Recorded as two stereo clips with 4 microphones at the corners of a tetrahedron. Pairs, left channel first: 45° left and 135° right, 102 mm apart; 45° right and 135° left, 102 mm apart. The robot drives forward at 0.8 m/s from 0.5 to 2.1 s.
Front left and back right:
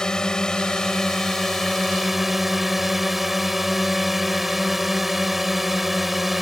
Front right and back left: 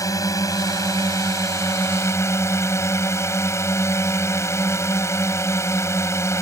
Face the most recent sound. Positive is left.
turn(degrees=-50)